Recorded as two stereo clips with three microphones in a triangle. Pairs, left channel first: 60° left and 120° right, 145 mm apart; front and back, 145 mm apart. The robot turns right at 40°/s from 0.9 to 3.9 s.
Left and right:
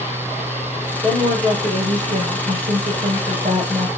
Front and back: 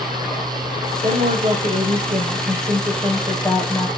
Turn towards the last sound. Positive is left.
turn(degrees=-60)